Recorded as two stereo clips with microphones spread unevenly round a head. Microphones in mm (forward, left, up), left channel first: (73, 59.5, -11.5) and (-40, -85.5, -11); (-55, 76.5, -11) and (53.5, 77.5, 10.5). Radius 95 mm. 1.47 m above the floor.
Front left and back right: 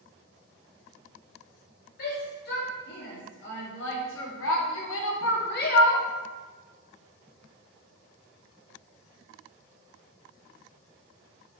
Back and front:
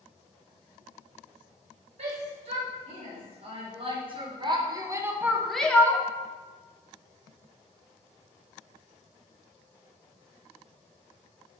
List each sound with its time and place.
2.0 s a shout: 15° left, 1.9 m; by 6.1 s 110° left, 0.7 m